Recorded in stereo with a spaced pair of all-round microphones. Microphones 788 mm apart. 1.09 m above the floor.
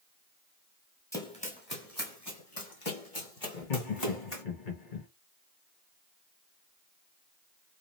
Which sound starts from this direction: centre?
Running footsteps, at 1.1 s.